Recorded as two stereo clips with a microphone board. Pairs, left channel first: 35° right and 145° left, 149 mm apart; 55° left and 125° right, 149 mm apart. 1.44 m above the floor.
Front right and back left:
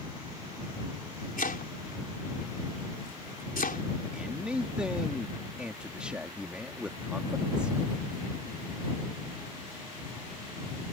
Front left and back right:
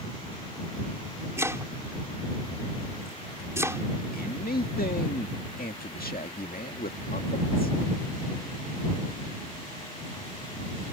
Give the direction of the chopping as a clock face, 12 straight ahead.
2 o'clock.